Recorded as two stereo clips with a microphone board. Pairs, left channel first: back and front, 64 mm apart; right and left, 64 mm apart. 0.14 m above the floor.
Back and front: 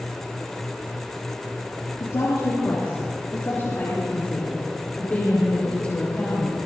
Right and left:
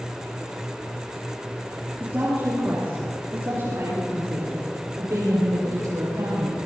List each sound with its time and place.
2.0 s a woman speaking: 150° left, 3.5 m; by 6.6 s 105° left, 6 m